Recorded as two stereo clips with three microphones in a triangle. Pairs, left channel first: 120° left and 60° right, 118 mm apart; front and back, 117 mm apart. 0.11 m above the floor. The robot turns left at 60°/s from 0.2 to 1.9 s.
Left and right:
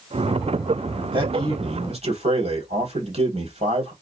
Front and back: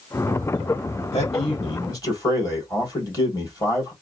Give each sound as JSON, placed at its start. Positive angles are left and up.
{"t": 1.1, "sound": "a man speaking", "azimuth_deg": -10, "distance_m": 3.5}